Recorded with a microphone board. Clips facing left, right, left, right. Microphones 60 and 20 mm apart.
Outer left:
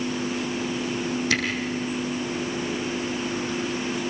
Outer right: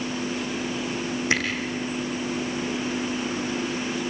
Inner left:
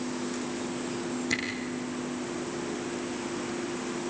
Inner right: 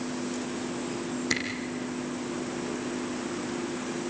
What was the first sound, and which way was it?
A camera shutter, 25° right (ahead or behind).